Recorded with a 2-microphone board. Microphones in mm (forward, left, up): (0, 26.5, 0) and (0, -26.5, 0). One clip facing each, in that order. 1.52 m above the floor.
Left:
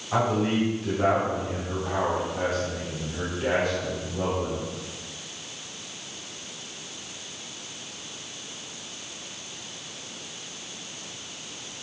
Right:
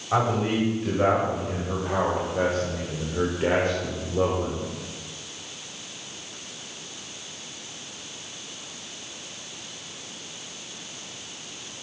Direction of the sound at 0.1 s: 30° right (ahead or behind).